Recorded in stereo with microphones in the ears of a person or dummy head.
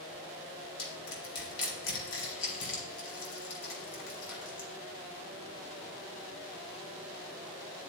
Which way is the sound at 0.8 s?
75° left (ahead or behind).